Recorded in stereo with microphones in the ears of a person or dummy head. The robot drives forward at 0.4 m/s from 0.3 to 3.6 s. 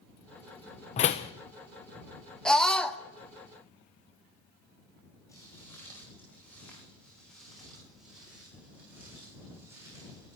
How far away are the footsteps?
About 6.5 m.